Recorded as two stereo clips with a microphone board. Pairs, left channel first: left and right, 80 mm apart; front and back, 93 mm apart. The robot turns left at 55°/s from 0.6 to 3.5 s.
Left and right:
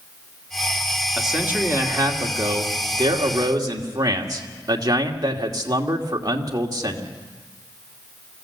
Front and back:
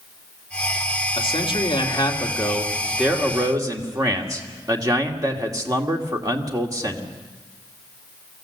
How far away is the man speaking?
About 1.9 m.